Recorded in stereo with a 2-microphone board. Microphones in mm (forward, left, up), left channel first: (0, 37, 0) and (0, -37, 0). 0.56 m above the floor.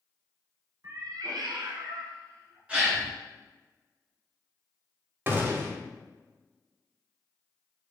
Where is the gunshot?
30° right (ahead or behind), 0.6 m.